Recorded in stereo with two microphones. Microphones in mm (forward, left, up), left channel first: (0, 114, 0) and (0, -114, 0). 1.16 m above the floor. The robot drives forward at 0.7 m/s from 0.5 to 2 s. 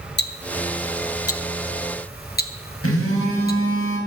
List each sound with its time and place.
0.2 s ticking: 50° left (ahead or behind), 0.7 m; by 3.6 s 45° left (ahead or behind), 0.8 m
2.8 s a phone buzzing: 85° left, 4 m